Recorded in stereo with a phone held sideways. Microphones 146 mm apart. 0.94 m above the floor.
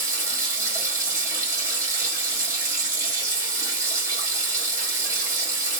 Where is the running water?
20° right (ahead or behind), 1.7 m.